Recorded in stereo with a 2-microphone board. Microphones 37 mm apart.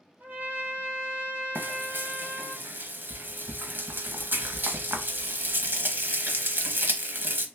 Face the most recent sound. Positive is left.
turn(degrees=-60)  # may be behind; listen again after turning